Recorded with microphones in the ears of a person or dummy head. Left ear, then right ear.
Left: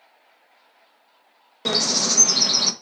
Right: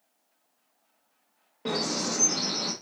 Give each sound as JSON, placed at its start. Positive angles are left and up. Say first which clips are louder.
{"t": 1.6, "sound": "a bird", "louder": "left 9 dB", "side_deg": 80, "distance_m": 1.2}